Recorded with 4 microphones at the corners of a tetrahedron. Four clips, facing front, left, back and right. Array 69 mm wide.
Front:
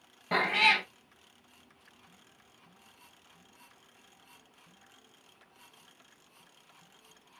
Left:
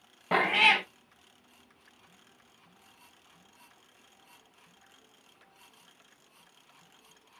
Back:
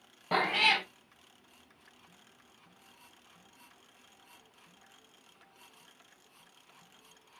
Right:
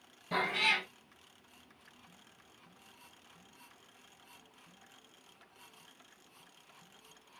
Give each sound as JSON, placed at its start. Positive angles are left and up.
{"t": 0.3, "sound": "a cat meowing", "azimuth_deg": 100, "distance_m": 0.7}